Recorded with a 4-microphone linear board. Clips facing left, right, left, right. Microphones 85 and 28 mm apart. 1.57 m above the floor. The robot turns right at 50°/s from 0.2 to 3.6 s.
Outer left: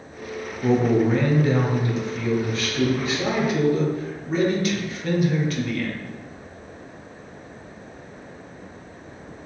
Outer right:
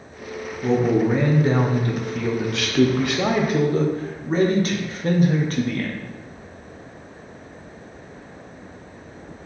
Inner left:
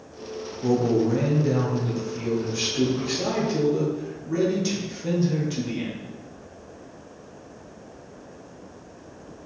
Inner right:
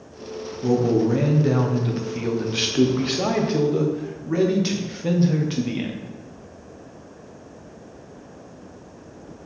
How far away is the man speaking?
About 1.2 m.